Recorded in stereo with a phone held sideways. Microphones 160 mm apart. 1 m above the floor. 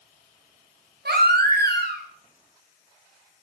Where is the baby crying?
85° right, 0.6 m.